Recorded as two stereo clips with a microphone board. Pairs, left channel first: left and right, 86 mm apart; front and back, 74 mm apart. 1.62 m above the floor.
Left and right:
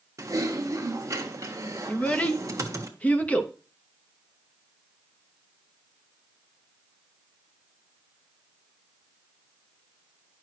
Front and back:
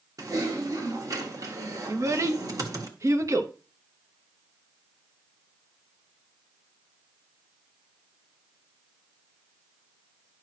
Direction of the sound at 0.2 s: 145° right.